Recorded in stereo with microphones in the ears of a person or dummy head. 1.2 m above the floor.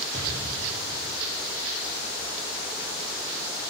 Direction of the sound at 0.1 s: 40° right (ahead or behind).